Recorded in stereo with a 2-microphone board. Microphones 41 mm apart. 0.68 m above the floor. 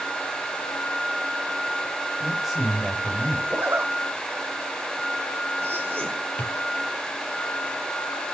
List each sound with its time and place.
2.2 s a man speaking: centre (ahead or behind), 4 m
3.5 s a zipper: 70° right (ahead or behind), 1.7 m
6.4 s a drawer: 50° left (ahead or behind), 6 m